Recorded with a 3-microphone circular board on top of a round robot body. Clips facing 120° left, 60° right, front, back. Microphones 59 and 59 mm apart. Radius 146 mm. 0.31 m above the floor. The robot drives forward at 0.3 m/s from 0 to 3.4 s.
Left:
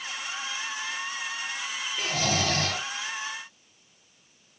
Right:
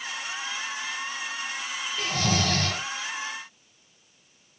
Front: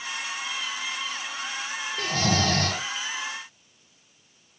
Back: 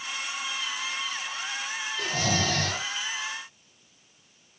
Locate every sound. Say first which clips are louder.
2.0 s snoring: right 1 dB, front 3 dB; 35° left, 2.5 m; by 2.8 s 40° left, 2.5 m